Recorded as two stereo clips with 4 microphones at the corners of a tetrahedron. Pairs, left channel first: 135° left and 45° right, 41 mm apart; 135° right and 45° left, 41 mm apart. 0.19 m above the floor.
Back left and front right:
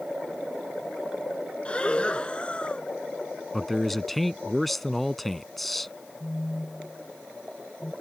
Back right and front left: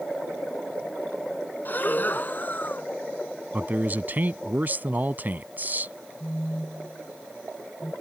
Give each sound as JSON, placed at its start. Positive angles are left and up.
{"t": 1.6, "sound": "breathing", "azimuth_deg": -165}
{"t": 3.5, "sound": "a man speaking", "azimuth_deg": 50}
{"t": 6.2, "sound": "a phone buzzing", "azimuth_deg": 165}